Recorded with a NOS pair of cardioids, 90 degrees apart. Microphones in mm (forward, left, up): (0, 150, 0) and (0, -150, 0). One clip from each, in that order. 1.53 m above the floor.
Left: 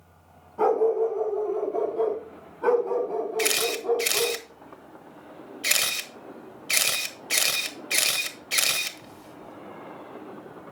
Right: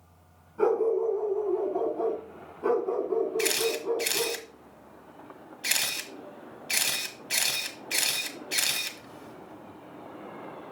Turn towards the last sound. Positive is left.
turn(degrees=25)